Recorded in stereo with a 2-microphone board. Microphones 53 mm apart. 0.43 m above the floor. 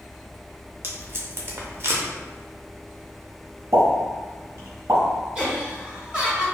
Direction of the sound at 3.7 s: 70° right (ahead or behind).